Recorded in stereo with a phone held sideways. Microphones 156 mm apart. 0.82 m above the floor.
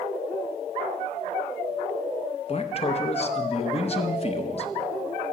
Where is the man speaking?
40° left (ahead or behind), 0.8 m.